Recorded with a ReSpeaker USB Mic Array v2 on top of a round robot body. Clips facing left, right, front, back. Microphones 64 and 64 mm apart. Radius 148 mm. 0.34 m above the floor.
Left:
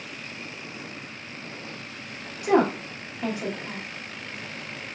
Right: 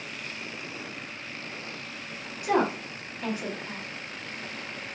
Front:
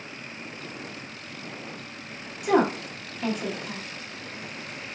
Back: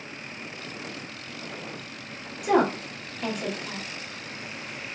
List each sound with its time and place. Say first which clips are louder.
2.4 s a woman speaking: left 4 dB, even; 85° left, 0.9 m